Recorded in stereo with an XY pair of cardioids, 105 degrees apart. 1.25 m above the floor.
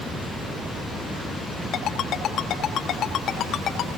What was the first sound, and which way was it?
A ringtone, 60° left.